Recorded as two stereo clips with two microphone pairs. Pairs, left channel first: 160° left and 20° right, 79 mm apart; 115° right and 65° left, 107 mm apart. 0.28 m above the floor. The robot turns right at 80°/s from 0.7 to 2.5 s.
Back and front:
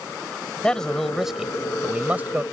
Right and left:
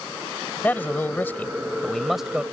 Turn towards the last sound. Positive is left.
turn(degrees=0)